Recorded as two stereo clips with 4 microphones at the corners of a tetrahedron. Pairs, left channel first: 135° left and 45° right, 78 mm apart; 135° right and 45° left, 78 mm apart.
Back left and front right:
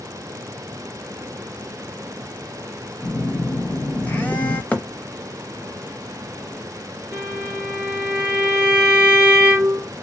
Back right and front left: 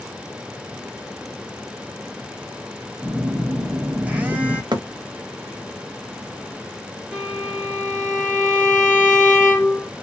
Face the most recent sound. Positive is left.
turn(degrees=-10)